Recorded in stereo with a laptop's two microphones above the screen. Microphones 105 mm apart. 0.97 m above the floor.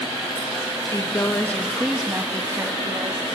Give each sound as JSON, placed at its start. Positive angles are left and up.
{"t": 0.9, "sound": "a woman speaking", "side_deg": 35, "distance_m": 1.5}